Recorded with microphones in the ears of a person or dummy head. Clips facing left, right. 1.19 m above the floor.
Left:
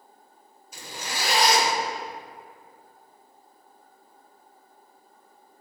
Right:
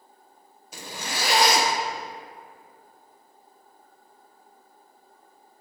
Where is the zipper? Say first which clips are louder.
Right 1 dB; 65° right (ahead or behind), 1.3 m.